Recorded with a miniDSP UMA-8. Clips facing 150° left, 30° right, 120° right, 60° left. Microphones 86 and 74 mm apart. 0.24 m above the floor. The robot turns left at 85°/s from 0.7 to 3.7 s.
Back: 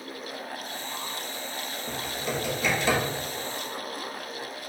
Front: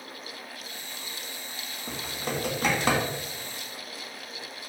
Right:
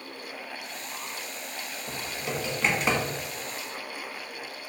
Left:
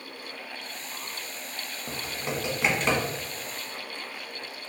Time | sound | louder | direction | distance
1.9 | typing on a keyboard | even, left 1 dB | 45° left | 0.7 m